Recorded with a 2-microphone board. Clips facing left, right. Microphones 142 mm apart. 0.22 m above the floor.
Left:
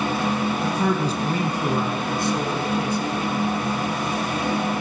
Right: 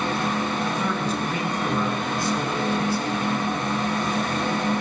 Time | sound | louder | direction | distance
0.6 | a man speaking | left 3 dB | 40° left (ahead or behind) | 2 m